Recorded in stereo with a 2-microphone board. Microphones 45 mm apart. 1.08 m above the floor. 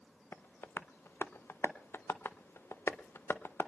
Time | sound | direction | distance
0.3 | tapping | 70° left (ahead or behind) | 0.6 m